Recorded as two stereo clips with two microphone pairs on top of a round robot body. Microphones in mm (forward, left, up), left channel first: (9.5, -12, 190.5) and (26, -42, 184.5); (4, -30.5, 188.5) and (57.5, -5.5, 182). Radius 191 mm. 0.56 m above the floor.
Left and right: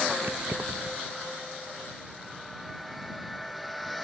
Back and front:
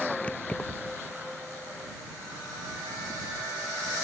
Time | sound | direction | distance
0.2 | keys jangling | 85° right | ?